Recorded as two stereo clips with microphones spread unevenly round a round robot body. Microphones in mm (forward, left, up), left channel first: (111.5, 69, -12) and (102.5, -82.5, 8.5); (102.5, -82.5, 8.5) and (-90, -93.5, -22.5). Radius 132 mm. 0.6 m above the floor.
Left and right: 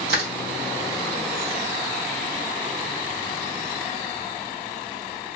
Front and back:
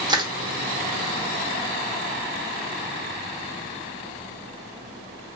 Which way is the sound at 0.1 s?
110° right.